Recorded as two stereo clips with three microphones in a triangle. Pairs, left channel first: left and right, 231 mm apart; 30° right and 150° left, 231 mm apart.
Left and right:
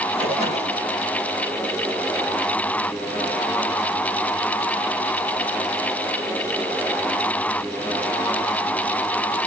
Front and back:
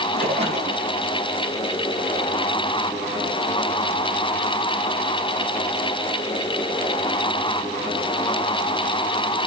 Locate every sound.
0.1 s a splash: 150° right, 3 m